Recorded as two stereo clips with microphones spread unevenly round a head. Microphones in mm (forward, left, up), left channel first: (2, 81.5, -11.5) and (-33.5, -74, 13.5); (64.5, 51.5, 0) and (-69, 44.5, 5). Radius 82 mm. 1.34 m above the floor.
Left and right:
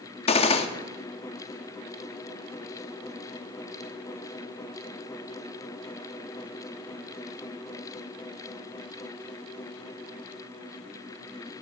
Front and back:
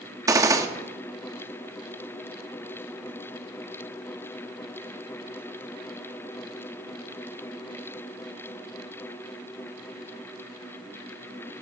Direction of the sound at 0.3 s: 130° left.